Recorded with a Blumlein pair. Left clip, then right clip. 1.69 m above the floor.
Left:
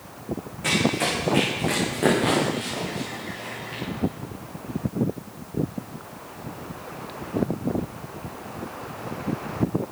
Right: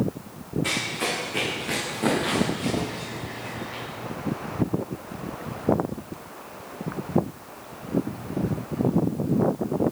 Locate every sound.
0.6 s running footsteps: 15° left, 8 m; by 3.8 s 20° left, 11.5 m